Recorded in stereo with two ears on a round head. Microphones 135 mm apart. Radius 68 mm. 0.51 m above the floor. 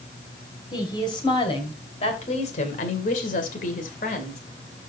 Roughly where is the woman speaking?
Left.